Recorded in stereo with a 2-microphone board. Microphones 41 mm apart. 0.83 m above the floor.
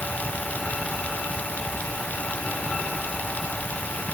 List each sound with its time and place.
Only background noise.